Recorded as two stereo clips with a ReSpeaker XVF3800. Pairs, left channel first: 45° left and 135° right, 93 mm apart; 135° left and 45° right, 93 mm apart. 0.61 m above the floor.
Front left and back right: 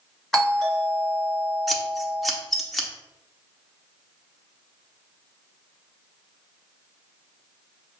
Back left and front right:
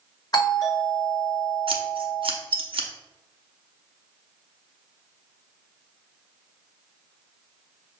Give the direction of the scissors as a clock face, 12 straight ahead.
1 o'clock.